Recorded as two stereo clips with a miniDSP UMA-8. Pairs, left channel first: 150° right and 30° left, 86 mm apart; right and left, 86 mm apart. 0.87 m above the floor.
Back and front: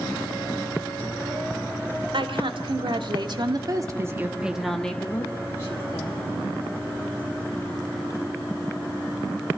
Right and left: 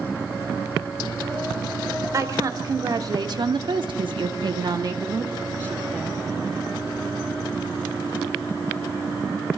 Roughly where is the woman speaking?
Ahead left.